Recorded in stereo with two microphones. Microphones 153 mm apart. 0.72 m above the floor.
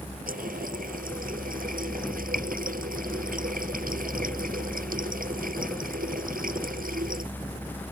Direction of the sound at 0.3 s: 65° right (ahead or behind).